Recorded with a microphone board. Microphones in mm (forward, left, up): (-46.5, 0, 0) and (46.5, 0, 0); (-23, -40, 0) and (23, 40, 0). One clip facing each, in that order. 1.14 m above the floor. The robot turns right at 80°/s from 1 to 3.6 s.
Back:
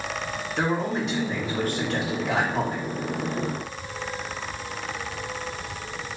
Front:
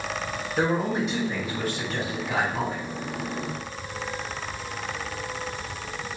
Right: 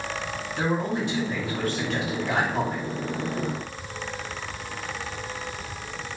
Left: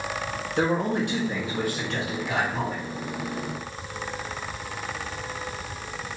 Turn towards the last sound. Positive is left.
turn(degrees=-70)